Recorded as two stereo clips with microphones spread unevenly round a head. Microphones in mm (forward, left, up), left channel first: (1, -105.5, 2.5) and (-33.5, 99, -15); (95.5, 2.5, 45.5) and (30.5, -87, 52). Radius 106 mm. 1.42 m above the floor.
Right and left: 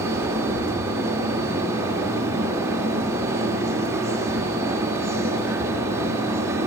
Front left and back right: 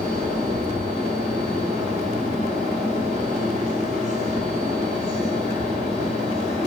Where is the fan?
Straight behind, 1.8 m.